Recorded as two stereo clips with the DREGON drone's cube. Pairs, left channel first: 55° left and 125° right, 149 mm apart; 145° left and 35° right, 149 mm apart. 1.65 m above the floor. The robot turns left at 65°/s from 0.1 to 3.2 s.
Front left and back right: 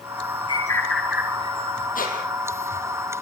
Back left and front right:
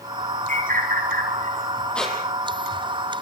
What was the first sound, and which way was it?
A bird, straight ahead.